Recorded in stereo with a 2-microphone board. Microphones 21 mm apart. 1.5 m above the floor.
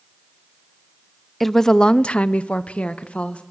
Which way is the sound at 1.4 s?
5° left (ahead or behind).